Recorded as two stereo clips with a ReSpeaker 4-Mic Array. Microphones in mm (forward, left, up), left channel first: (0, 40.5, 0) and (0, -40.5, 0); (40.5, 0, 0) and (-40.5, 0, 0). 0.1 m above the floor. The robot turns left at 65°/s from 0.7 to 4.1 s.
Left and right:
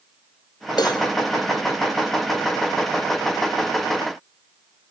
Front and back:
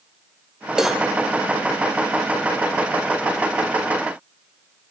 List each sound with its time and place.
0.8 s a cowbell: 100° left, 1.4 m; by 1.0 s 85° left, 1.4 m